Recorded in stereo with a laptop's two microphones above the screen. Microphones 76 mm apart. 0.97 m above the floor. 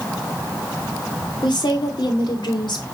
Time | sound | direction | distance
1.4 | a woman speaking | 75° left (ahead or behind) | 3 m